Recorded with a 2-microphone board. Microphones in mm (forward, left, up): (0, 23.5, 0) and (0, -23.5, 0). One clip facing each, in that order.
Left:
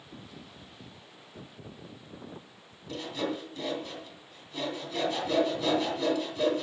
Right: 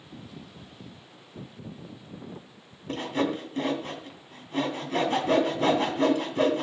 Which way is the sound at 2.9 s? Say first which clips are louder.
Right 5 dB; 45° right (ahead or behind).